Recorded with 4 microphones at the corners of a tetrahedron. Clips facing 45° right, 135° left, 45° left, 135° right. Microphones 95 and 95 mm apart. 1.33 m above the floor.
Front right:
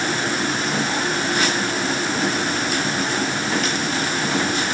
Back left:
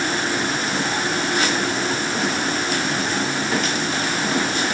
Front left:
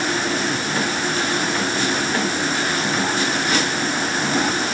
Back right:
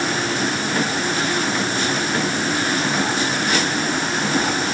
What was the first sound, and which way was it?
Only background noise.